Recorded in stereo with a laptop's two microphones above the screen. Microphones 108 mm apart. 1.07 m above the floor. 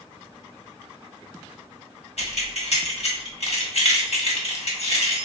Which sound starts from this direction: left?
Keys jangling, at 2.2 s.